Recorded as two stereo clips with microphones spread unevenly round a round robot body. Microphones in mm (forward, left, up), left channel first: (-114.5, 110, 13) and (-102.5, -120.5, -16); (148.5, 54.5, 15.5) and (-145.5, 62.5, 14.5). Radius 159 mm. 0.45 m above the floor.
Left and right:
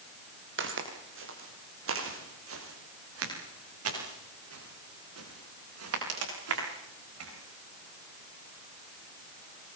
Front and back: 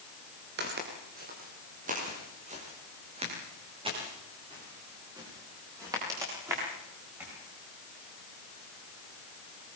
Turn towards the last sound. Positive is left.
turn(degrees=-100)